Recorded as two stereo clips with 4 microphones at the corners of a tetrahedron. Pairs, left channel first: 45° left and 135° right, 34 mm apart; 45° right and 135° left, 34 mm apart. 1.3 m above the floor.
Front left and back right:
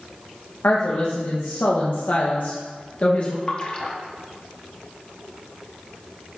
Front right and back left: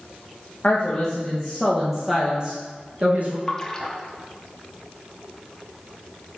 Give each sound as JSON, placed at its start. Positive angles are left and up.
{"t": 0.6, "sound": "a woman speaking", "azimuth_deg": 25, "distance_m": 1.3}
{"t": 3.5, "sound": "a splash", "azimuth_deg": 15, "distance_m": 0.8}